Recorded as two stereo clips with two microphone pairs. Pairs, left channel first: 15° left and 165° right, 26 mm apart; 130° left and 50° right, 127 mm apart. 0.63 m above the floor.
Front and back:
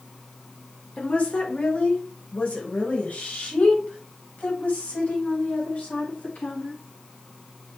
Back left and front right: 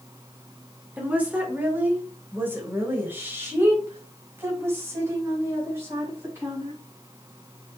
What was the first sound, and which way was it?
A woman speaking, 30° left.